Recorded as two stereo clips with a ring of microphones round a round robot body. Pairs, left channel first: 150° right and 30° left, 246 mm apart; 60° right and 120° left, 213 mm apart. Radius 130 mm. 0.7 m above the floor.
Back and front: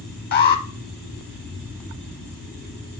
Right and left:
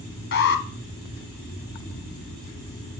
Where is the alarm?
100° right, 1.0 m.